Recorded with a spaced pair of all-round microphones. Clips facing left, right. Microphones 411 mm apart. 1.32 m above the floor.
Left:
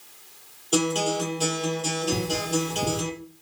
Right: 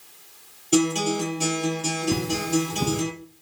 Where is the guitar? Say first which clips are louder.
Right 3 dB; 40° right (ahead or behind), 7.5 m.